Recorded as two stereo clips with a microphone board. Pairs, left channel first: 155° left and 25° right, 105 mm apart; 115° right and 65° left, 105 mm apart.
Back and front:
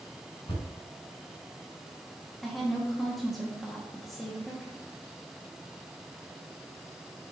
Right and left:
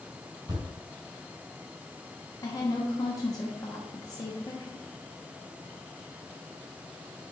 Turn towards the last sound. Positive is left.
turn(degrees=-110)